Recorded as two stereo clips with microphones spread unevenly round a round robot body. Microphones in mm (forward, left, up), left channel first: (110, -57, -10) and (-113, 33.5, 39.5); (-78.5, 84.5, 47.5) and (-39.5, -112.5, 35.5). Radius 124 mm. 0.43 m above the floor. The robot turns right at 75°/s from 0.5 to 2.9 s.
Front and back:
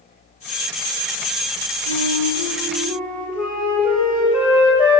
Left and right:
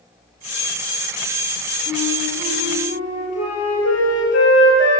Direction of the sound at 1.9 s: 5° right.